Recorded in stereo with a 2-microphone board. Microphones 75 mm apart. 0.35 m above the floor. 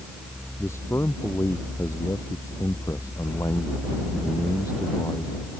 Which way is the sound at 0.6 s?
40° left (ahead or behind).